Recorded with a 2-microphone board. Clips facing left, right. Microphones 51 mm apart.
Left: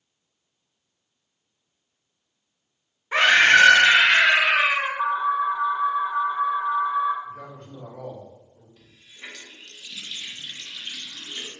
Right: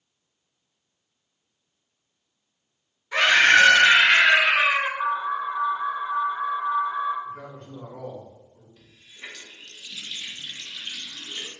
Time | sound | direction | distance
3.1 | a scream | 30° left (ahead or behind) | 1.0 m
5.0 | an alarm | 40° left (ahead or behind) | 1.2 m
7.2 | a man speaking | 75° right (ahead or behind) | 1.6 m
8.8 | a running tap | 5° right (ahead or behind) | 0.7 m